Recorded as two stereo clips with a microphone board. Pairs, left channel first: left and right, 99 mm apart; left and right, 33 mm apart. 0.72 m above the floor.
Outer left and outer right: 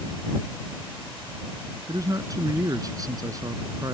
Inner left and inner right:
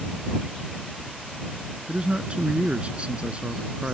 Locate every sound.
1.9 s a man speaking: 35° right (ahead or behind)